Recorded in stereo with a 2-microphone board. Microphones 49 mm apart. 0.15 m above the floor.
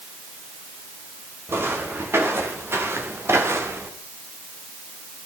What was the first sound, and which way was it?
Footsteps, 55° right (ahead or behind).